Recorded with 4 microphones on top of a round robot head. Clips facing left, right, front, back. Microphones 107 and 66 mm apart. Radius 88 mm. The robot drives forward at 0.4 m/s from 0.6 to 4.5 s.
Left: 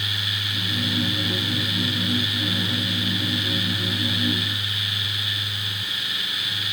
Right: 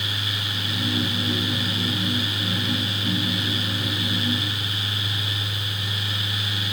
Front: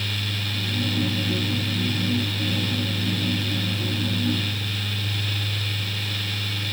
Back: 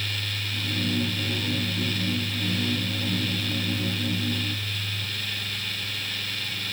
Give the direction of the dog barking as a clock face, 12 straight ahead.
I don't hear a dog barking.